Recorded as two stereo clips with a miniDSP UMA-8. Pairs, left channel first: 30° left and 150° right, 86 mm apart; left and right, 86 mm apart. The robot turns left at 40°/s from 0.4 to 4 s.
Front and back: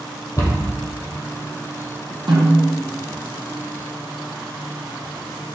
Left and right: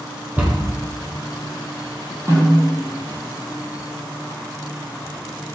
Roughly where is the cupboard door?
Ahead.